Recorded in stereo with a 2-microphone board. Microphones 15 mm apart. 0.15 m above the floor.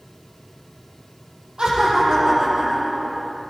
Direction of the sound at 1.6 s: 60° right (ahead or behind).